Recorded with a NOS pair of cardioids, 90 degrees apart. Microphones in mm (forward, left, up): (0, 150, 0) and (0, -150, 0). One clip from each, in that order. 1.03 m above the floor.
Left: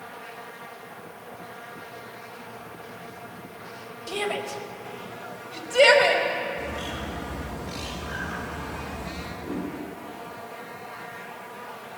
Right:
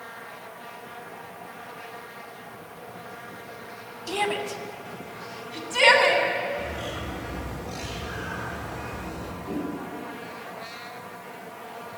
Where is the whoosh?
30° left, 6 m.